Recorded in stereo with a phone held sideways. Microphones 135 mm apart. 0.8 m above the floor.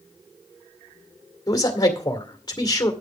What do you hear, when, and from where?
1.5 s a man speaking: 30° left (ahead or behind), 2.0 m